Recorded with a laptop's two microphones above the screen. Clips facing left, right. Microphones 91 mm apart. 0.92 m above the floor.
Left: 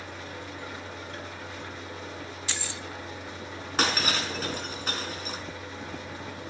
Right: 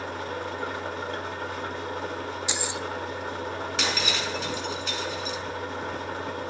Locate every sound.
0.0 s an engine running: 65° right (ahead or behind), 1.7 m
2.5 s keys jangling: 20° right (ahead or behind), 0.8 m
3.8 s breaking glass: 45° left (ahead or behind), 4 m